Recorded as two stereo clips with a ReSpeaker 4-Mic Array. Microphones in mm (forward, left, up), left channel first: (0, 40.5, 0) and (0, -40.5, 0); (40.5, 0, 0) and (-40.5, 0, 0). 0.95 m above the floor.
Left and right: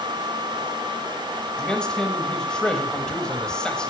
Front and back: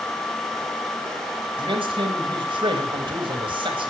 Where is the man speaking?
170° left, 4.5 m.